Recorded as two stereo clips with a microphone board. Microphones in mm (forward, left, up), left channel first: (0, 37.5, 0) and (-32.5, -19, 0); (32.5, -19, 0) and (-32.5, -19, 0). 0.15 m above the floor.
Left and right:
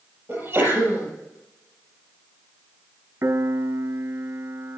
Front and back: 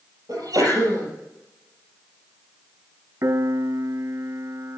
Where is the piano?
155° right, 0.6 m.